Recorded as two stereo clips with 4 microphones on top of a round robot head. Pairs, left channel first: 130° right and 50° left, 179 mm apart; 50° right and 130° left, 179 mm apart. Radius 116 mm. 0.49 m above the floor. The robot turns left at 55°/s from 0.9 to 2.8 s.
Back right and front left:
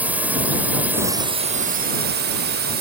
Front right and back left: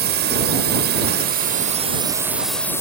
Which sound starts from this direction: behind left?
A drone, at 0.0 s.